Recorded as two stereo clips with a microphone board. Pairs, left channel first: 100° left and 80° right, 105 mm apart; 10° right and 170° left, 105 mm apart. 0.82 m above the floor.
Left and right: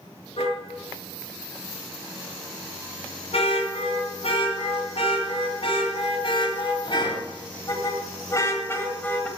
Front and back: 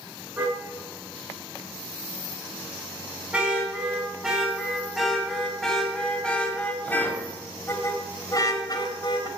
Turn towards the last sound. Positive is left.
turn(degrees=25)